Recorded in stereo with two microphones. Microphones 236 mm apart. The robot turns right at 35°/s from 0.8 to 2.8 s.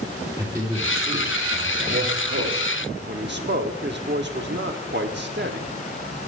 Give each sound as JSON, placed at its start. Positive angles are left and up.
{"t": 0.4, "sound": "a man speaking", "azimuth_deg": -165, "distance_m": 2.5}
{"t": 3.1, "sound": "a man speaking", "side_deg": -50, "distance_m": 1.0}